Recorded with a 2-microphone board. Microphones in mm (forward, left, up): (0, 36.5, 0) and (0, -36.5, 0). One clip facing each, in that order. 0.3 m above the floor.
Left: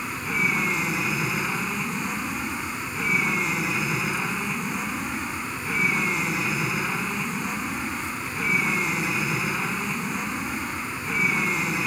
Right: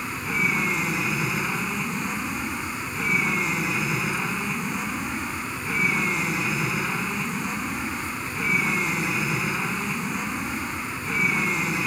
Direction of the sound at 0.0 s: Centre (ahead or behind).